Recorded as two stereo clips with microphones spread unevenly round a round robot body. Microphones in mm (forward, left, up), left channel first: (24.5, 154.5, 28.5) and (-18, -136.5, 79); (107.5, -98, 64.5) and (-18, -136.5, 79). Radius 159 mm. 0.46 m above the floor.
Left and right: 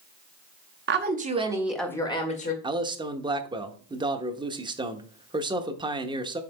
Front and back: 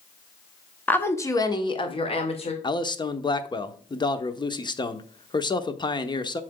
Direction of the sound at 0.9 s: 50° right.